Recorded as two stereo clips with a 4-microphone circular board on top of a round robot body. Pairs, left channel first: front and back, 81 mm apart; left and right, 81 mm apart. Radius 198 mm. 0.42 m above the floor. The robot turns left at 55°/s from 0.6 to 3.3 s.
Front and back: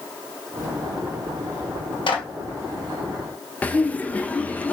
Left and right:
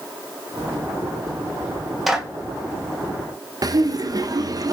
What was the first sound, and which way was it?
A clap, straight ahead.